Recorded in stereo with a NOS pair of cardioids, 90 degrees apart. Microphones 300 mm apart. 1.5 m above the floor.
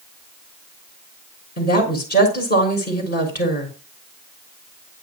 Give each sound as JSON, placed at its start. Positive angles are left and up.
{"t": 1.6, "sound": "a woman speaking", "azimuth_deg": 30, "distance_m": 6.0}